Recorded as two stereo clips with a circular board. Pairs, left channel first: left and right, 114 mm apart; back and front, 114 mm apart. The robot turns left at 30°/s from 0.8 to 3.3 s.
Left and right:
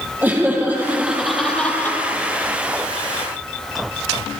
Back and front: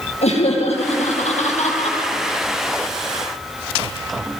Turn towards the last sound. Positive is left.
turn(degrees=120)